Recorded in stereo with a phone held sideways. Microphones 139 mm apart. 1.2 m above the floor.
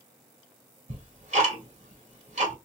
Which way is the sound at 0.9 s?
60° right (ahead or behind).